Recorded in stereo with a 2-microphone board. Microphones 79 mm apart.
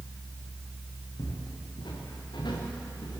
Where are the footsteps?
70° left (ahead or behind), 5 m; by 3.2 s 75° left (ahead or behind), 3.5 m.